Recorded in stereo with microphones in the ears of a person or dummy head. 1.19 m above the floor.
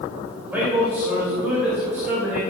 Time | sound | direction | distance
0.3 | a man speaking | 15° right (ahead or behind) | 2.5 m